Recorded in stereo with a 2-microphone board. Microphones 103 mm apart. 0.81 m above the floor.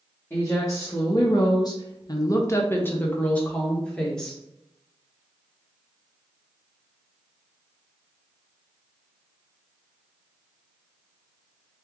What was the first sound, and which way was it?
A woman speaking, 25° left (ahead or behind).